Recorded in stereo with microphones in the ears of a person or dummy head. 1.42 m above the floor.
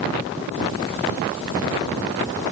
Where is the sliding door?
No sliding door in this recording.